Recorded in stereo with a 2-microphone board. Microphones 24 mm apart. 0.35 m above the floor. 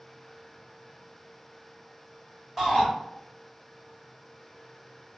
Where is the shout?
5° right (ahead or behind), 1.7 m.